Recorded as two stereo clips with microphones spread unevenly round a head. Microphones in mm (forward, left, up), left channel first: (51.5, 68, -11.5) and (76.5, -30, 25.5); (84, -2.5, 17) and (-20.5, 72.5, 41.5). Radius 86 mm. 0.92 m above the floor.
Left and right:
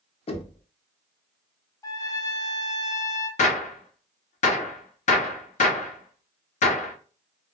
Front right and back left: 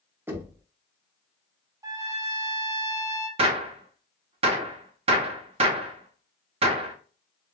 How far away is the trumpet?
About 0.6 m.